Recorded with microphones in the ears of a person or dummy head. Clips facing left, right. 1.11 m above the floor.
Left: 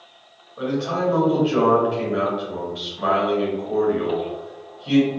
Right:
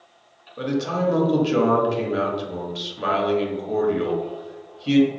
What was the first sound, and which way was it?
A man speaking, 30° right (ahead or behind).